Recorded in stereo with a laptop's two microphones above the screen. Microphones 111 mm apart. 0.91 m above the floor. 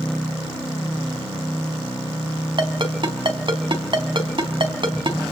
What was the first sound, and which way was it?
A ringtone, 50° right (ahead or behind).